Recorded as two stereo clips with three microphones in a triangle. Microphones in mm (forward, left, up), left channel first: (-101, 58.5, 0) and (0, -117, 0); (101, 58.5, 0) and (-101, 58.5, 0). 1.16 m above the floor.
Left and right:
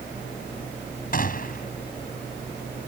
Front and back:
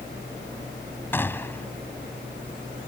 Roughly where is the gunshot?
Left.